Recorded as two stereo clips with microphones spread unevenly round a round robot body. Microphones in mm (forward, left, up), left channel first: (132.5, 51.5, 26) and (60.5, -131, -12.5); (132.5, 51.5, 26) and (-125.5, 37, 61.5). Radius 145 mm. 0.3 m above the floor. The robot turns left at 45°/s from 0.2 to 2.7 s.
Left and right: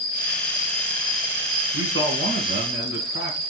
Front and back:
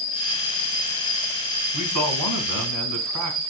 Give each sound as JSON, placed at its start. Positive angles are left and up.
{"t": 0.0, "sound": "an insect", "azimuth_deg": -45, "distance_m": 4.0}
{"t": 1.7, "sound": "a man speaking", "azimuth_deg": -140, "distance_m": 3.0}